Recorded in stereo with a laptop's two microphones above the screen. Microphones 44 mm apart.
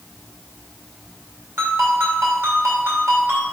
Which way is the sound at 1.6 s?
85° right.